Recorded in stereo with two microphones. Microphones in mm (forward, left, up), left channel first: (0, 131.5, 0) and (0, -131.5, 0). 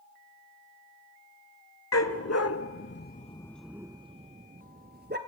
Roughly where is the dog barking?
Left.